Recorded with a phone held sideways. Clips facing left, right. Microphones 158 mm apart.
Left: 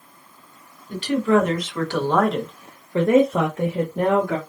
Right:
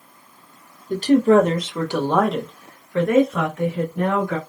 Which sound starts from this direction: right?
A woman speaking, at 0.9 s.